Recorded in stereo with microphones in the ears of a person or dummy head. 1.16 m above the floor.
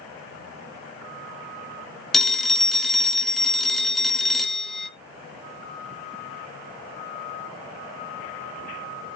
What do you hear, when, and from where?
2.1 s a phone ringing: centre (ahead or behind), 0.6 m